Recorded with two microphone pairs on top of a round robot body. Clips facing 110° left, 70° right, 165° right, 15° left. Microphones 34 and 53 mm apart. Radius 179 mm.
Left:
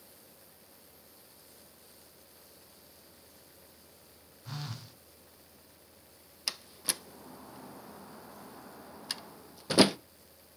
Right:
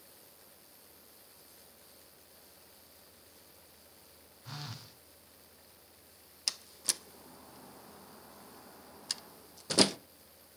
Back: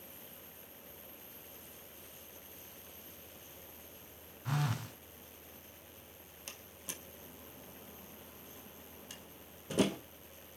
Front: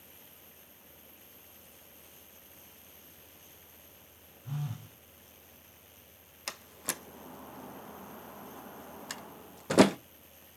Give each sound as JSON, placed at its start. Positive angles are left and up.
{"t": 4.5, "sound": "a phone buzzing", "azimuth_deg": -160, "distance_m": 1.1}
{"t": 6.5, "sound": "a door slam", "azimuth_deg": 30, "distance_m": 0.8}